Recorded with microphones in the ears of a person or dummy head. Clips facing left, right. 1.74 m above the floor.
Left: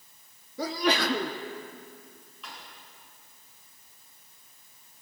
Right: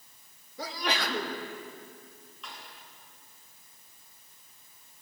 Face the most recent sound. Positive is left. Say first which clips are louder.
# left 1 dB
turn(degrees=5)  # may be behind; listen again after turning